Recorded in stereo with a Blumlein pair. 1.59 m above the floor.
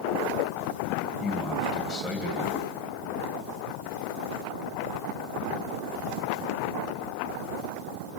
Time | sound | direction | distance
1.2 | a man speaking | 15° left | 2 m